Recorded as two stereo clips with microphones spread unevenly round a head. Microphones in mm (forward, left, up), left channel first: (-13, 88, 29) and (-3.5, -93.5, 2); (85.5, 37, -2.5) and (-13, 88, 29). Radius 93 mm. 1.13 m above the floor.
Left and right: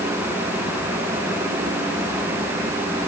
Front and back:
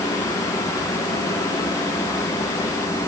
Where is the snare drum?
No snare drum in this recording.